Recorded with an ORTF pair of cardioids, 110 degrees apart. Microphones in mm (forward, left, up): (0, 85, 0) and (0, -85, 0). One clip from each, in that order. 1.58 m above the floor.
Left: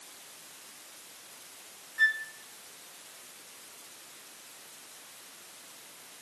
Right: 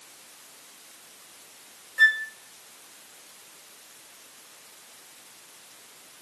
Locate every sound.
2.0 s a flute: 30° right, 0.7 m